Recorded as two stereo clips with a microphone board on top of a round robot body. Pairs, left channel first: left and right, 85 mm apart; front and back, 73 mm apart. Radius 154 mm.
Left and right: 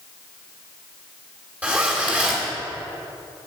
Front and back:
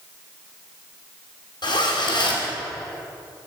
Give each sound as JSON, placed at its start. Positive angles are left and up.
{"t": 1.6, "sound": "a zipper", "azimuth_deg": -15, "distance_m": 3.0}